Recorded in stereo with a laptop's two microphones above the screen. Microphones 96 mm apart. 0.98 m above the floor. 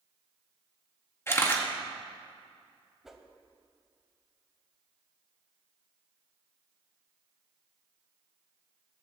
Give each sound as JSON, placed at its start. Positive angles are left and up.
{"t": 1.3, "sound": "a camera shutter", "side_deg": 25, "distance_m": 1.9}
{"t": 3.0, "sound": "a whoosh", "side_deg": -5, "distance_m": 0.9}